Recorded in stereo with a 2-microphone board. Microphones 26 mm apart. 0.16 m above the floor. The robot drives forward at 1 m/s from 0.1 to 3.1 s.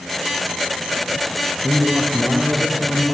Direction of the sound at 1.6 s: 35° right (ahead or behind).